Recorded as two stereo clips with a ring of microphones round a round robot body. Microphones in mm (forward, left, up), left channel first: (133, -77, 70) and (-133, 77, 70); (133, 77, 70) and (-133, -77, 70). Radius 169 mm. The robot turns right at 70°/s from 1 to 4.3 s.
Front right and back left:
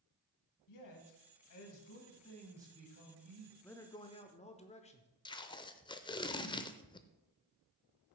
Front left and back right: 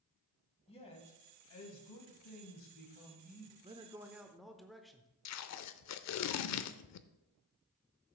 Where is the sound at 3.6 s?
105° right, 0.9 m; by 5.1 s 60° right, 0.9 m.